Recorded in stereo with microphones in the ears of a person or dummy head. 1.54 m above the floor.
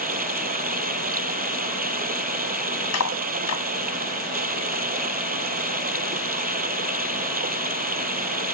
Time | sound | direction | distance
0.0 | running water | 35° right (ahead or behind) | ?
2.9 | cutlery clinking | 80° left | ?